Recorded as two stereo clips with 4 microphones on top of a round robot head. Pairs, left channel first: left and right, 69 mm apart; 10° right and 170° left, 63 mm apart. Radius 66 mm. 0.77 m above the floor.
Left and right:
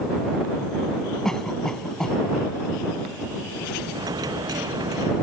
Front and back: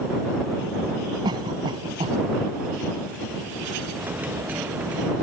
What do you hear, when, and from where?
1.2 s a cough: 175° left
3.9 s a dropped coin: 120° right